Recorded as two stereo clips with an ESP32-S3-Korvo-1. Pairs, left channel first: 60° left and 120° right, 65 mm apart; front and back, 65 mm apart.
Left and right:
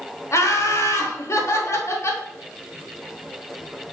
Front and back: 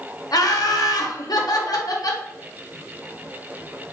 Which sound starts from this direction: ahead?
Laughter, at 0.3 s.